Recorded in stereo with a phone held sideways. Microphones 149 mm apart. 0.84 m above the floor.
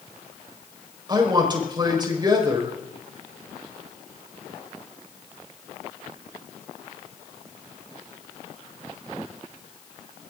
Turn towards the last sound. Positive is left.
turn(degrees=-30)  # may be behind; listen again after turning